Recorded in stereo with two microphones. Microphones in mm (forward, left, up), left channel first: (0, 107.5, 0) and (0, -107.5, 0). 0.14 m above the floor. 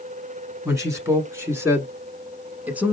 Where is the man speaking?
15° right (ahead or behind), 1.4 m; by 2.9 s 5° right (ahead or behind), 1.1 m.